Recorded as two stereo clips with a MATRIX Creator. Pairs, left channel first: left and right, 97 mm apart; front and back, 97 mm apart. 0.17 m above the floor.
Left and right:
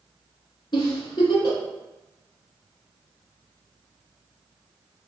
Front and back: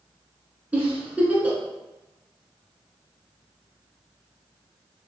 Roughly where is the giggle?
Left.